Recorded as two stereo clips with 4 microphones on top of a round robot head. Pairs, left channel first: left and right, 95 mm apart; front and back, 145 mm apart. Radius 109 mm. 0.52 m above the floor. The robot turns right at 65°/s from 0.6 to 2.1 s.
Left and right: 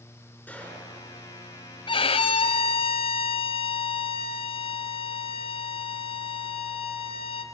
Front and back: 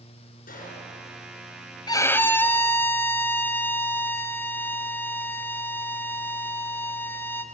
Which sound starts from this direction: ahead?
A gunshot, at 0.5 s.